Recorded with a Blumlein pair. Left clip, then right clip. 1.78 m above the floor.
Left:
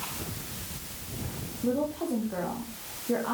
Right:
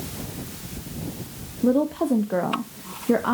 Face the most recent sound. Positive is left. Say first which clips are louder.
# right 8 dB
turn(degrees=-60)